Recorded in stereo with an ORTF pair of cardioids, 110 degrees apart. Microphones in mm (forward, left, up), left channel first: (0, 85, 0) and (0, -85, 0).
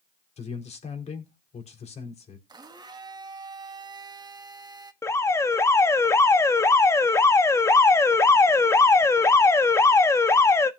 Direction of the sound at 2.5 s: 25° right.